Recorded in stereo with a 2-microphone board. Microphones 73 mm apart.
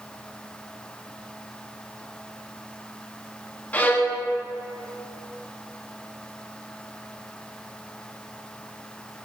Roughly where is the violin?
Left.